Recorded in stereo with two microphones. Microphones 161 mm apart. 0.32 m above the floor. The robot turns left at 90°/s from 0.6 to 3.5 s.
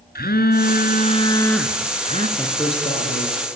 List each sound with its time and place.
0.1 s a phone buzzing: 90° left, 2.5 m; by 2.3 s 60° right, 2.5 m
2.4 s a man speaking: 175° left, 6 m; by 3.6 s 75° left, 6 m